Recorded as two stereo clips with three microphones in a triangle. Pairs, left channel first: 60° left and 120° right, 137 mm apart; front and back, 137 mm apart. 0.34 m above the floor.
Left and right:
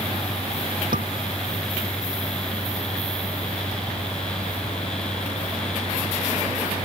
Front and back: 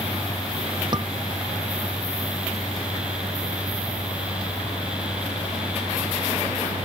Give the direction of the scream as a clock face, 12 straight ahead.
4 o'clock.